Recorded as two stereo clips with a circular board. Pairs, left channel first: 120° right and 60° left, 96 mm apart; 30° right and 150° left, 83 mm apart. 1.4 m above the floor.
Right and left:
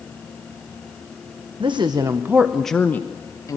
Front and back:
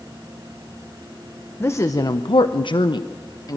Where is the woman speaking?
30° left, 1.0 m; by 3.6 s 70° right, 1.5 m.